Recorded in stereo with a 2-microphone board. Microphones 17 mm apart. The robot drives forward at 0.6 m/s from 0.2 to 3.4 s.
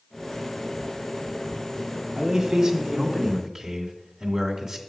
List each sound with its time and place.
2.1 s a man speaking: 40° right (ahead or behind), 1.3 m; by 4.8 s 30° right (ahead or behind), 1.7 m